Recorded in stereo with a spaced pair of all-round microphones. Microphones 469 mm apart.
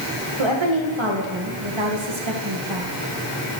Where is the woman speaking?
80° right, 1.5 m.